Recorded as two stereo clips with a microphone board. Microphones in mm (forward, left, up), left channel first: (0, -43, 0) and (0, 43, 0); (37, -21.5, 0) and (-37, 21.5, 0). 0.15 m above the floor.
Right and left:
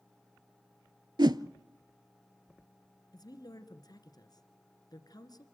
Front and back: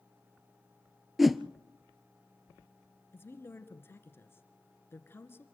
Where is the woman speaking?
85° right, 1.9 m.